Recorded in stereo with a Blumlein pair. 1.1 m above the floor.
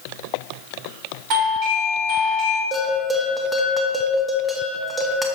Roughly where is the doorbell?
Ahead right.